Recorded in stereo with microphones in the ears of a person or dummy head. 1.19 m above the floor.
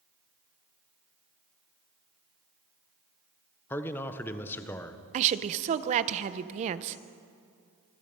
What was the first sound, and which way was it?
A man speaking, 10° left (ahead or behind).